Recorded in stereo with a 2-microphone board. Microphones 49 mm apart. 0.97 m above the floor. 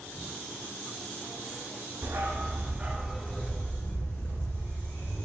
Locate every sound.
2.0 s a dog barking: 45° right (ahead or behind), 0.8 m; by 5.2 s 70° left (ahead or behind), 1.2 m